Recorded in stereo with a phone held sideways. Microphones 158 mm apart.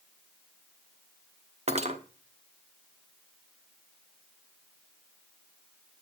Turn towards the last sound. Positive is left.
turn(degrees=-45)  # may be behind; listen again after turning